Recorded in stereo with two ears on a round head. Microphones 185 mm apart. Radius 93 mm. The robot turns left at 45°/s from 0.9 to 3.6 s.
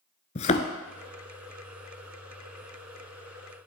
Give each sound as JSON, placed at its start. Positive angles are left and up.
{"t": 0.3, "sound": "a thud", "side_deg": 35, "distance_m": 0.8}